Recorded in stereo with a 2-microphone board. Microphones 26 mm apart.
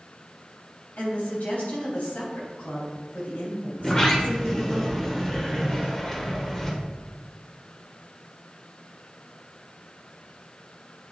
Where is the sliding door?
20° left (ahead or behind), 1.4 m.